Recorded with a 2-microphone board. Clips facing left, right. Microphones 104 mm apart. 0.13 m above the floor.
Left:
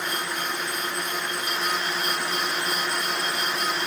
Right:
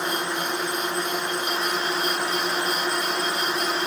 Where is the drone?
30° right (ahead or behind).